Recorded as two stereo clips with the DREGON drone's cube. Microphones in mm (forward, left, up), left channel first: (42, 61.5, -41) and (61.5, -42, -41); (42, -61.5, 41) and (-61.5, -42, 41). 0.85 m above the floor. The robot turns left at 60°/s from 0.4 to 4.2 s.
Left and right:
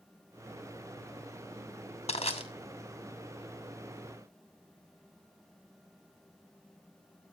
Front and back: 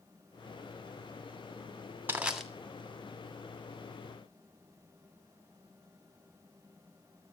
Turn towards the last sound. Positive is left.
turn(degrees=-30)